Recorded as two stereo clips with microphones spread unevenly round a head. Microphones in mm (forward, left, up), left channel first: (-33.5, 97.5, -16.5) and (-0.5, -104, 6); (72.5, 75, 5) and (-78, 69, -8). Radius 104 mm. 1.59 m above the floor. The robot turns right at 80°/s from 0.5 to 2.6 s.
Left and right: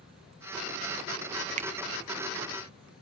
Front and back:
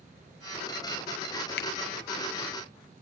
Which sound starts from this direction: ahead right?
A finger snap, at 1.6 s.